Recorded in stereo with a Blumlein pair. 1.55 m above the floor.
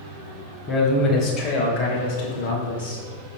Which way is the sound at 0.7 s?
30° left.